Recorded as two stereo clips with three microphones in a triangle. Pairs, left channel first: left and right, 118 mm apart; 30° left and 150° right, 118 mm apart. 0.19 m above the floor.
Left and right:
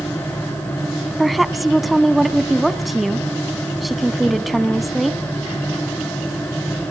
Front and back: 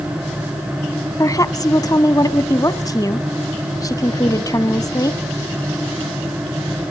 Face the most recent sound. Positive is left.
turn(degrees=0)